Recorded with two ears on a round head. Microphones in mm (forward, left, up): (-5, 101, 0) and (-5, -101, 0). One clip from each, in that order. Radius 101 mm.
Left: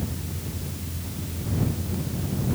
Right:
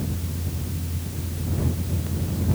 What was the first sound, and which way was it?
Only background noise.